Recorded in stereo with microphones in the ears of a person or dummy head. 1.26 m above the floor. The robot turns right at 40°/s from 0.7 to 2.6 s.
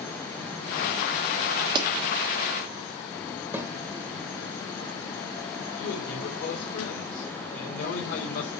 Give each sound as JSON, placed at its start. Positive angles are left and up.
{"t": 1.8, "sound": "a pop", "side_deg": -25, "distance_m": 1.4}
{"t": 3.5, "sound": "a snare drum", "side_deg": -10, "distance_m": 1.4}
{"t": 5.8, "sound": "a man speaking", "side_deg": 50, "distance_m": 3.5}